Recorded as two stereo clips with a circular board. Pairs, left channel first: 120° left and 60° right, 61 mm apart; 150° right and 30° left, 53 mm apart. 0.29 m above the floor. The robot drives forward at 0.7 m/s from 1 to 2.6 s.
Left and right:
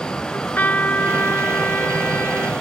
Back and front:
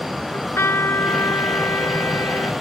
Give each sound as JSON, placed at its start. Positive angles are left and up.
{"t": 0.3, "sound": "a trumpet", "azimuth_deg": 180}